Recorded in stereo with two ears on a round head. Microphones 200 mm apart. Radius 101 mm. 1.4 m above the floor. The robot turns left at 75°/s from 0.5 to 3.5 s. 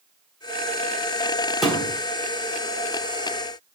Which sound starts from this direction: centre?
A thud, at 1.6 s.